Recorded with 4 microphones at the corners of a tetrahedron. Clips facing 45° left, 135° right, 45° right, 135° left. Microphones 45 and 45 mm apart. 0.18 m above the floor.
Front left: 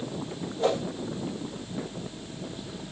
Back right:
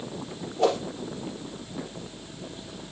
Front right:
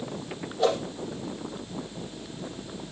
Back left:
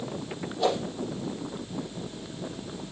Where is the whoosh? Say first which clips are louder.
Back right 2 dB, front right 2 dB; 135° right, 5 m.